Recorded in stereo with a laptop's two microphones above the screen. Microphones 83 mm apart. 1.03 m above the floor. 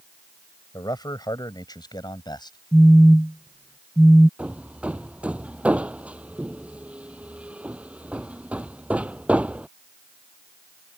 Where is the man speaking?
60° left (ahead or behind); by 2.6 s 65° left (ahead or behind).